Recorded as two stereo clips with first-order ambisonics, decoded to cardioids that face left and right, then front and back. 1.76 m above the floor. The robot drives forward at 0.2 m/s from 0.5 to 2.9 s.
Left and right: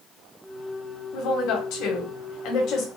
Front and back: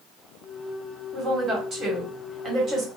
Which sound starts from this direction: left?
A woman speaking, at 1.1 s.